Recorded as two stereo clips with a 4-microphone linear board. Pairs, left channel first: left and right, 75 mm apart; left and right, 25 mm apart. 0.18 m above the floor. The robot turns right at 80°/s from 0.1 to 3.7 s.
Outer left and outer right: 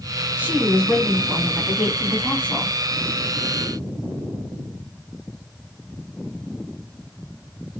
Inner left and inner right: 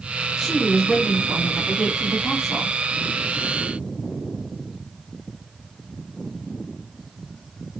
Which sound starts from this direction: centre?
A woman speaking, at 0.4 s.